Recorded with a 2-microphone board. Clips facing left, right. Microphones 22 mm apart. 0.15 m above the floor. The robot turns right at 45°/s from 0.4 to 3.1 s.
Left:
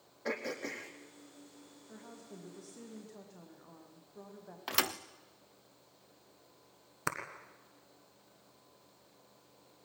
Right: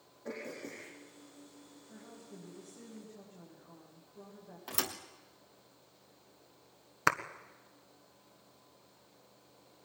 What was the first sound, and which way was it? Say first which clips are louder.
Throat clearing: left 5 dB; 75° left (ahead or behind).